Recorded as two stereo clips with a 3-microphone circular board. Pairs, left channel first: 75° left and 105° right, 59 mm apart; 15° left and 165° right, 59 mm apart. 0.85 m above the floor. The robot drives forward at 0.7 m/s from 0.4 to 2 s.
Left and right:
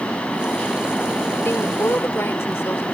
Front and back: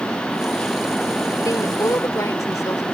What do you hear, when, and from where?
1.4 s a woman speaking: 30° left; by 2.8 s 35° left